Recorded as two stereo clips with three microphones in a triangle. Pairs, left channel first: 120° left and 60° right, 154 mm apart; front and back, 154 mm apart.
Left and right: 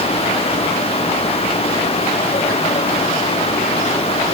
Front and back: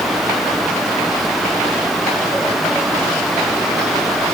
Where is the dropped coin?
No dropped coin in this recording.